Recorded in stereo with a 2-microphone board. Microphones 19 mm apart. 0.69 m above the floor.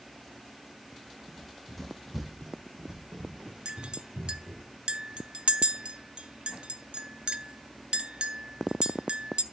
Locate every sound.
1.3 s running footsteps: 20° left (ahead or behind), 3 m; by 4.7 s 70° right (ahead or behind), 4.5 m
3.6 s a clink: 65° right (ahead or behind), 0.6 m